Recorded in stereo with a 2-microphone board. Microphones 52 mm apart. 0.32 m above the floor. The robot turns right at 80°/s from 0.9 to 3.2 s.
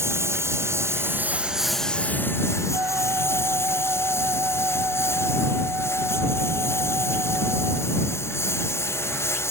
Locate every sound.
0.0 s a lawn mower: 65° right (ahead or behind); by 9.5 s 65° left (ahead or behind)
2.7 s a flute: 85° right; by 7.9 s 50° right